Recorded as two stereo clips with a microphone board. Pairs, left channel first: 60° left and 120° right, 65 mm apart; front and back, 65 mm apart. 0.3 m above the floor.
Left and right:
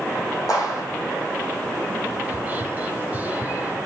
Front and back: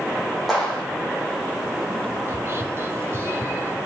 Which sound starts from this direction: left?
A clap, at 0.5 s.